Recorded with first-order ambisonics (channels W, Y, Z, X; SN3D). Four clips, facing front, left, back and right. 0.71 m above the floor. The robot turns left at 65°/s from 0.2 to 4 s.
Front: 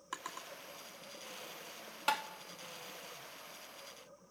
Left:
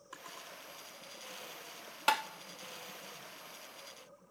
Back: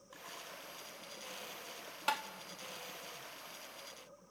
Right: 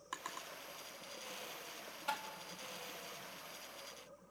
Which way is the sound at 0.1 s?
35° right.